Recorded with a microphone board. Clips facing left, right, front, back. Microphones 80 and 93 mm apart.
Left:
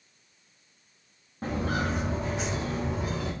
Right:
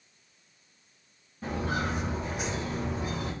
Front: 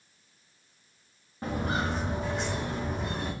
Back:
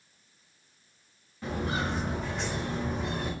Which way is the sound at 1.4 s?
50° left.